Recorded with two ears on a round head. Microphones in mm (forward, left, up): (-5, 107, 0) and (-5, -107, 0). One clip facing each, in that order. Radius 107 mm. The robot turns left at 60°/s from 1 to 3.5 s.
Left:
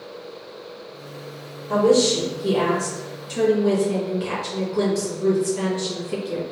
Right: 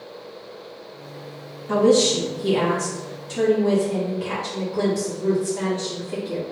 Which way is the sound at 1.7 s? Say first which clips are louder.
Even; 90° right.